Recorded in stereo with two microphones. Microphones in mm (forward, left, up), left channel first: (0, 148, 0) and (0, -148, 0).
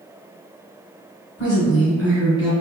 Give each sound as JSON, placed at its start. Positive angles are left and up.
{"t": 1.4, "sound": "a woman speaking", "side_deg": 20, "distance_m": 1.7}